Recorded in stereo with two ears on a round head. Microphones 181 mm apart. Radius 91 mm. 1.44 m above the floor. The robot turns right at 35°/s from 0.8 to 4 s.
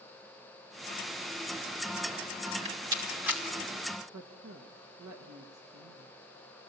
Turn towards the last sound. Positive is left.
turn(degrees=-85)